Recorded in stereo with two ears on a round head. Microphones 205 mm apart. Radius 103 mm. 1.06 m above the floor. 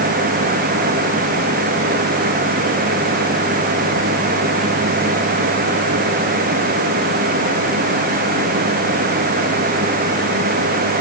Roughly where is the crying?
No crying in this recording.